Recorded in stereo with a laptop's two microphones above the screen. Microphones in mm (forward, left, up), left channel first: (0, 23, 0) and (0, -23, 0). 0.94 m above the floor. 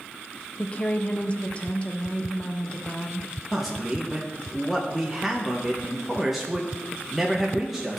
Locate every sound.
0.6 s a woman speaking: 30° left (ahead or behind), 0.8 m
3.5 s a man speaking: centre (ahead or behind), 0.9 m